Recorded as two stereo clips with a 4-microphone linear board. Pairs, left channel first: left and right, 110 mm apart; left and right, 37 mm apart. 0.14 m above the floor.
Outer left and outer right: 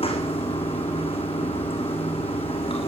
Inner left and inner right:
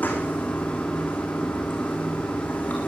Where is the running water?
60° left (ahead or behind), 3 m.